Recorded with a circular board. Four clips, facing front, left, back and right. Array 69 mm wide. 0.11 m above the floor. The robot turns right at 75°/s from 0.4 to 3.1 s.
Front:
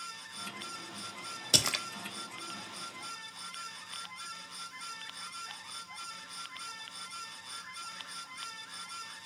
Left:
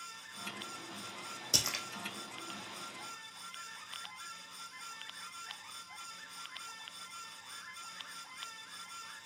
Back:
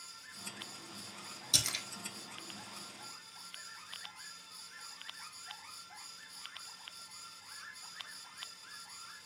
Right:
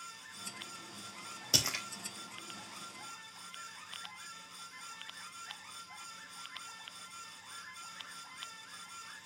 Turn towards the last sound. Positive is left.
turn(degrees=110)